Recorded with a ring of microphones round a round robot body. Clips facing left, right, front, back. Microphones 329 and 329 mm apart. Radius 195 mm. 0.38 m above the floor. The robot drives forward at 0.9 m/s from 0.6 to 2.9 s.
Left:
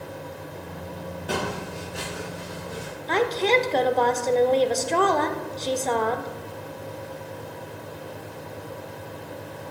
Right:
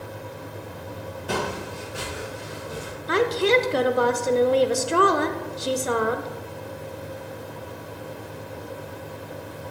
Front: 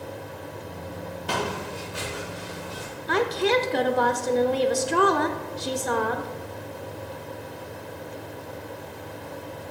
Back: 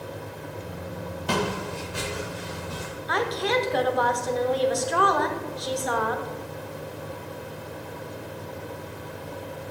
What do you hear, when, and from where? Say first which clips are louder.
1.3 s footsteps: right 1 dB, back 3 dB; straight behind, 4 m; by 2.9 s 170° right, 6 m
3.1 s a woman speaking: right 2 dB, front 4 dB; 25° right, 1.1 m